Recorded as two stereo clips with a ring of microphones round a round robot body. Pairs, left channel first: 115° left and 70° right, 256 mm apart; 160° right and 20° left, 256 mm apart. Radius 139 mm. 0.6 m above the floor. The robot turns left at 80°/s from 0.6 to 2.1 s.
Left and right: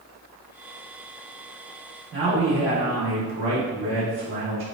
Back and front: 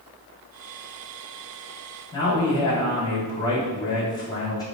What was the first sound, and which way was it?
A man speaking, 85° right.